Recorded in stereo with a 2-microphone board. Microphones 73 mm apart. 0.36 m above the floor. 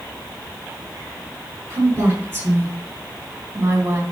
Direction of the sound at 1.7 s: 25° right (ahead or behind).